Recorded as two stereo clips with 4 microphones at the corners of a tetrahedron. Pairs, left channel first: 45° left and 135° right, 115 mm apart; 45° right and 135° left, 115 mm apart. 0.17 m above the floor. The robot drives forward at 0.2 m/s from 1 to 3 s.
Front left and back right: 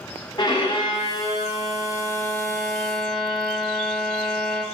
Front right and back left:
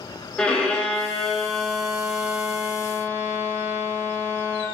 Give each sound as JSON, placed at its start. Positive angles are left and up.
{"t": 0.4, "sound": "a violin", "azimuth_deg": 30, "distance_m": 0.6}